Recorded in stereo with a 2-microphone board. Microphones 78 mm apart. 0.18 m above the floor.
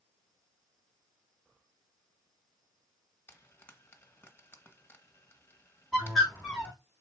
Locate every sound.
3.3 s frying: 25° left (ahead or behind), 1.5 m
5.9 s a bird: 5° left (ahead or behind), 4.5 m